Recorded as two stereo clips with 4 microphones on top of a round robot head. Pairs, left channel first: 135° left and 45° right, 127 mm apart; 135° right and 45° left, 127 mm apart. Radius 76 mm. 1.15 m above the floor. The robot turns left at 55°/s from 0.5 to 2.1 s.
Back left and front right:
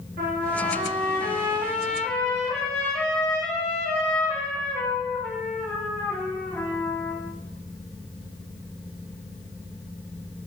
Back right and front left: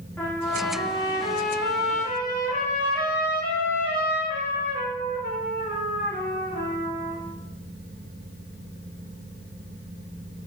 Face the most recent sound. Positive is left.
turn(degrees=-145)